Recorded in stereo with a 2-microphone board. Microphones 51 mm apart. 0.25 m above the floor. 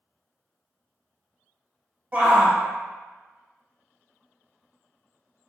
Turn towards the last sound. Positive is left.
turn(degrees=-30)  # may be behind; listen again after turning